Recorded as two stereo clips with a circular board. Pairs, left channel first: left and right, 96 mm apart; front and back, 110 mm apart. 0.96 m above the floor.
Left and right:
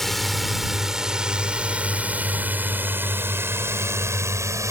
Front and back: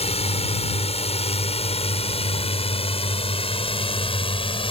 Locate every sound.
0.0 s a drone: 5° left; by 4.7 s 35° right